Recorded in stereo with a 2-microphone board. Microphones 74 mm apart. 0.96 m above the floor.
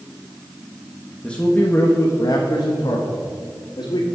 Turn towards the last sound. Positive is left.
turn(degrees=75)  # may be behind; listen again after turning